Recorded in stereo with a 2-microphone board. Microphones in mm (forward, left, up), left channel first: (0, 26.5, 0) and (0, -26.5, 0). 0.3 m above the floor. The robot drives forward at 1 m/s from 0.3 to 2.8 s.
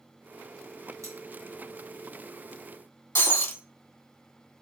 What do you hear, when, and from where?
1.0 s cutlery clinking: 80° right, 3 m
3.1 s breaking glass: 60° left (ahead or behind), 1.6 m